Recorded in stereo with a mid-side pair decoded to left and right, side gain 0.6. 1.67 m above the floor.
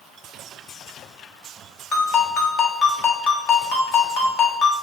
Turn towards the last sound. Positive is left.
turn(degrees=65)